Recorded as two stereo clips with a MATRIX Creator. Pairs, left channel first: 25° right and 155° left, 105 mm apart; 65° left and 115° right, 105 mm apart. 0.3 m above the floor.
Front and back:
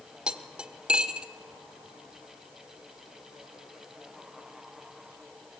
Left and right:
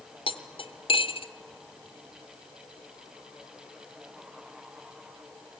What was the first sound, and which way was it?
Cutlery clinking, 80° left.